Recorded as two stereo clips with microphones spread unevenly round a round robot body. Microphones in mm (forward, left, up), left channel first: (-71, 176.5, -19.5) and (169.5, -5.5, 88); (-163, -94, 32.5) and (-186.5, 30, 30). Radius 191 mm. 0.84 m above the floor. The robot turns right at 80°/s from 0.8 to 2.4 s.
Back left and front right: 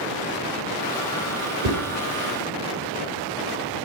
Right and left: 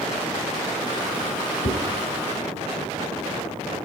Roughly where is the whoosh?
Ahead right.